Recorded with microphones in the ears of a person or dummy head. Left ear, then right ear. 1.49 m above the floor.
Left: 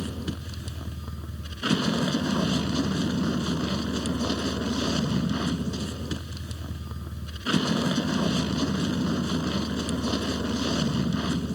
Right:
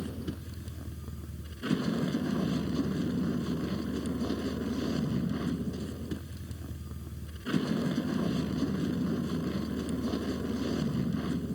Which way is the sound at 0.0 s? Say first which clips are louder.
Left 5 dB; 35° left (ahead or behind).